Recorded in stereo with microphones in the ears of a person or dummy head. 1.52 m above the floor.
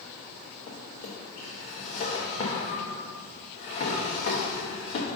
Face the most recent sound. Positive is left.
turn(degrees=30)  # may be behind; listen again after turning